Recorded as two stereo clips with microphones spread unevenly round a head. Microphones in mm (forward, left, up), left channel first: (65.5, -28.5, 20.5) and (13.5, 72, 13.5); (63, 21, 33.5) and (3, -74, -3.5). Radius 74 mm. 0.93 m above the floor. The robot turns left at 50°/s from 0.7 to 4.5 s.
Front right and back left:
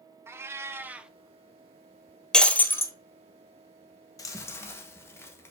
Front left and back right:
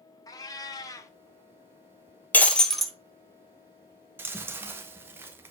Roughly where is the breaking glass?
Ahead.